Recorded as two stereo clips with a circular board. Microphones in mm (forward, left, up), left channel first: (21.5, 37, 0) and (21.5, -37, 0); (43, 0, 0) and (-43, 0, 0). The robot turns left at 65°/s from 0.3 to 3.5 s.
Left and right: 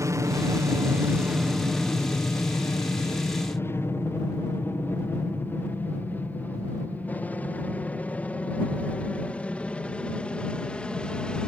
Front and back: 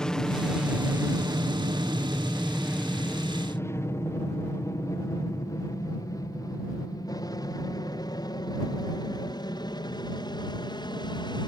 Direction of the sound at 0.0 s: 80° right.